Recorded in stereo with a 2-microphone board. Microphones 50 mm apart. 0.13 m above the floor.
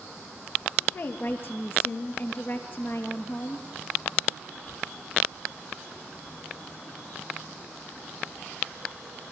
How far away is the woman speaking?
About 2.5 m.